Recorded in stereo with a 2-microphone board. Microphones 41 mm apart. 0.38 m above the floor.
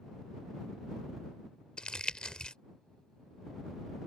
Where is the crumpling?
20° left (ahead or behind).